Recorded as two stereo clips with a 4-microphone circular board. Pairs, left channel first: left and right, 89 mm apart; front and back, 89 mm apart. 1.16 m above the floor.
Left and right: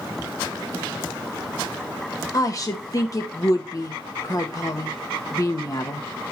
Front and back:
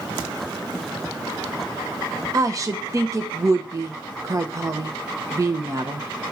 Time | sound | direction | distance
2.3 | a woman speaking | 135° left | 0.9 m